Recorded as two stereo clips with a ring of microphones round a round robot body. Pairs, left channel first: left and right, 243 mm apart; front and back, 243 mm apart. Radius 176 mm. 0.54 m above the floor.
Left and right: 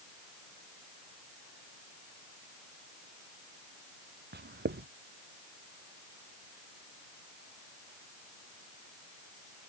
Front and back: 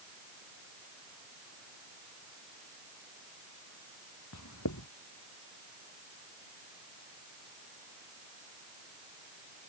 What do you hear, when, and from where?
4.3 s writing: 45° right